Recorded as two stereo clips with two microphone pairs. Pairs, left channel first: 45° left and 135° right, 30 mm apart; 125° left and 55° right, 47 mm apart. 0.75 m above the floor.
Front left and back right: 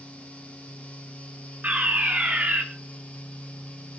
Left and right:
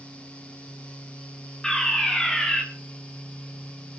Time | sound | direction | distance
1.6 | a fire alarm | 160° right | 3 m